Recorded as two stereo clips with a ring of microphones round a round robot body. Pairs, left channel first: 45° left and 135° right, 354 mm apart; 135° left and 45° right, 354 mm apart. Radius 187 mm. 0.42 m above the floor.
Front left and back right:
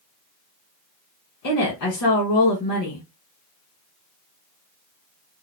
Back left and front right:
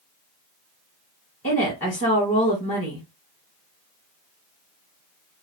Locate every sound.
1.4 s a woman speaking: 70° left, 2 m